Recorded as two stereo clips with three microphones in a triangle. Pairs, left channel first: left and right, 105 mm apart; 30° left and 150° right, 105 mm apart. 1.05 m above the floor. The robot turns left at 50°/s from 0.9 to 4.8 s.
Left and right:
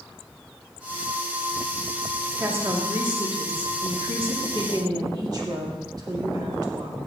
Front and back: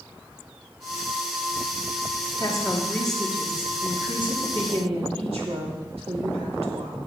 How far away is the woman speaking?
About 3 m.